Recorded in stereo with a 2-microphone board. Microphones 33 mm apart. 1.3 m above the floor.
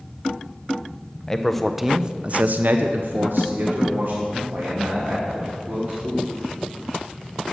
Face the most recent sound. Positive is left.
turn(degrees=-65)  # may be behind; listen again after turning